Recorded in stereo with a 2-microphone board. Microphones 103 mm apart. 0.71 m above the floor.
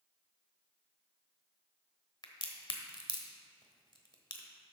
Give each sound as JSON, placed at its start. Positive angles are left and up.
{"t": 2.2, "sound": "a crack", "side_deg": 45, "distance_m": 1.1}